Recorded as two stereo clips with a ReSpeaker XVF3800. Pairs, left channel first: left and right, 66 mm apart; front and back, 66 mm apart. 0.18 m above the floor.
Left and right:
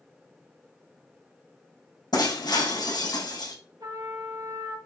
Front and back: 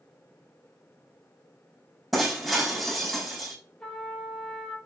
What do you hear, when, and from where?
2.1 s breaking glass: 90° left, 6.5 m
3.8 s a trumpet: 80° right, 5 m